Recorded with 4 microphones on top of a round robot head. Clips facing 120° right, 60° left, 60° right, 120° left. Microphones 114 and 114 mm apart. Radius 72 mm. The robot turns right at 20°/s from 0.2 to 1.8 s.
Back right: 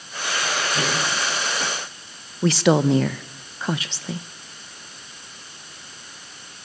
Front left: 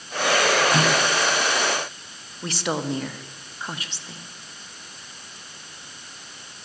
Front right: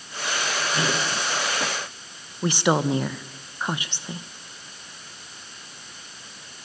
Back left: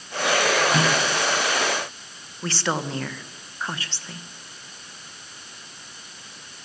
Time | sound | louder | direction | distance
0.7 | a microwave | front left 4 dB, back left 4 dB | 95° left | 7 m
2.4 | a woman speaking | back right 9 dB, front right 5 dB | 135° right | 1.0 m